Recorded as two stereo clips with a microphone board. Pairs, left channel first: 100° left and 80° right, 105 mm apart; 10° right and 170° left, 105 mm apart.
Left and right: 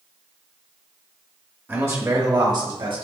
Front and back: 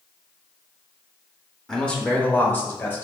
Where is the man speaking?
85° right, 0.9 m; by 3.0 s 75° right, 1.5 m.